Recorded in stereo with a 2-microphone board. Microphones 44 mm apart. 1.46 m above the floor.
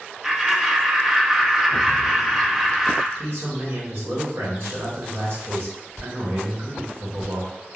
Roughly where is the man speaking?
Right.